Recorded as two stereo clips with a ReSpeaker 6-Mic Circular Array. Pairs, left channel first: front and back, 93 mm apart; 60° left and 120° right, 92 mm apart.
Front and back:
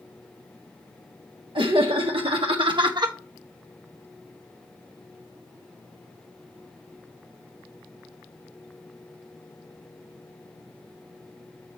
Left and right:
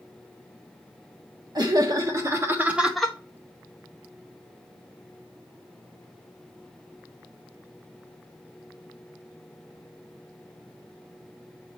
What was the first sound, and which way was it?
Laughter, 160° right.